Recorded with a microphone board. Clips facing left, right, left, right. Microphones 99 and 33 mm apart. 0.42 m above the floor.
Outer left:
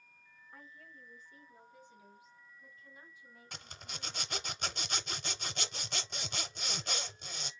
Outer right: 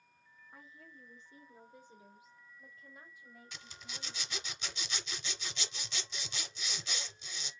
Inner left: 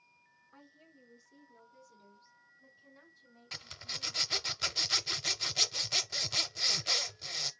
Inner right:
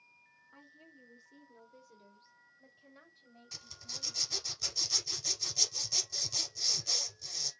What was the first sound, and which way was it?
A woman speaking, 15° right (ahead or behind).